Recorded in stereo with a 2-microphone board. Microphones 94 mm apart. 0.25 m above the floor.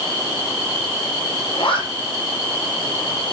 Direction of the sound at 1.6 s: 70° left (ahead or behind).